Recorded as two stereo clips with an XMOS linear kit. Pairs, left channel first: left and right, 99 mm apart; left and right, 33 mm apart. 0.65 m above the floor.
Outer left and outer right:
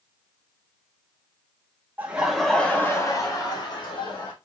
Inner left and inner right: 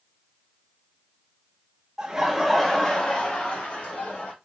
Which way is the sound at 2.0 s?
20° right (ahead or behind).